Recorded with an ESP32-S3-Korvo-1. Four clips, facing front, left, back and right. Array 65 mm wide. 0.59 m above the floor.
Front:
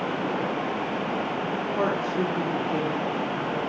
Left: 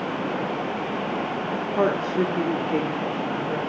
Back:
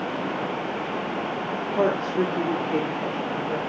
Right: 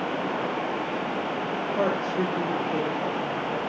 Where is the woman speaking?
130° left, 1.1 m.